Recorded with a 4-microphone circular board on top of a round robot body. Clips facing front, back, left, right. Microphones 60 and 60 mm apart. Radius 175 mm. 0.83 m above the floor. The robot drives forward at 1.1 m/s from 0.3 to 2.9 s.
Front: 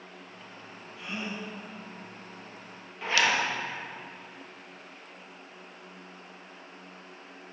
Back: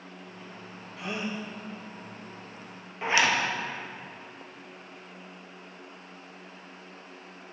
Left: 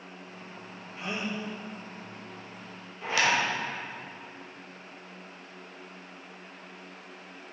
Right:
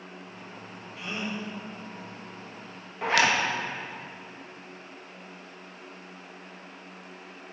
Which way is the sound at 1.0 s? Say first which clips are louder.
Back 3 dB, even; 145° left.